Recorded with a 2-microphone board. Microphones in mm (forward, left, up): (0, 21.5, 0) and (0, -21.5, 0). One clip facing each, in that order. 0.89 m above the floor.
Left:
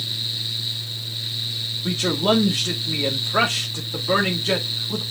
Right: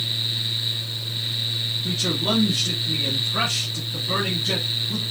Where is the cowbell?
I don't hear a cowbell.